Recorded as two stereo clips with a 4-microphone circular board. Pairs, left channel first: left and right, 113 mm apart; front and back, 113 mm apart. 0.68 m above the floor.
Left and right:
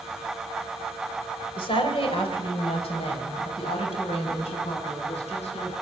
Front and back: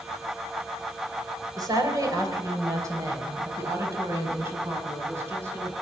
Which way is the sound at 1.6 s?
125° left.